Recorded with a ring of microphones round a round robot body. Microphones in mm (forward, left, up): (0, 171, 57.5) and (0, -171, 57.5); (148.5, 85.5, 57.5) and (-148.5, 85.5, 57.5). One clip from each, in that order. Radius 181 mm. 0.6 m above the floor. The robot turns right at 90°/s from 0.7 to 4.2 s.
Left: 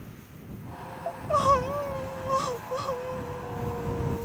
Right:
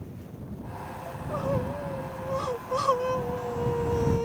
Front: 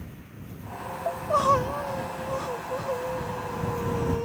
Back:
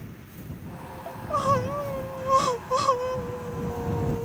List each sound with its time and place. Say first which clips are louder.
1.1 s crying: left 9 dB, front 3 dB; 35° left; by 4.2 s 40° right